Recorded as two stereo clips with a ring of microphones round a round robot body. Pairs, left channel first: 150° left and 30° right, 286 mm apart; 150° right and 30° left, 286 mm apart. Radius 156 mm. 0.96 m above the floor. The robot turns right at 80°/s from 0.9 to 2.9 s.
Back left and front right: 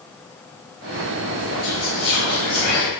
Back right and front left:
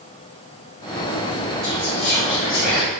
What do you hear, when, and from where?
1.6 s whispering: 110° left, 1.0 m; by 2.9 s 150° right, 1.0 m